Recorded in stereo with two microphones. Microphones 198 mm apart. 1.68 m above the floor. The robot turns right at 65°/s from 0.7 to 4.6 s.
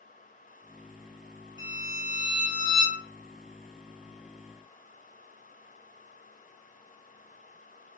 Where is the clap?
No clap in this recording.